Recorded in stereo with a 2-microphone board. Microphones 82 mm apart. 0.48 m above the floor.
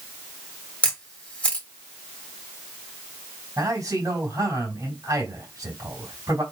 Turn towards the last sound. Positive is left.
turn(degrees=-45)  # may be behind; listen again after turning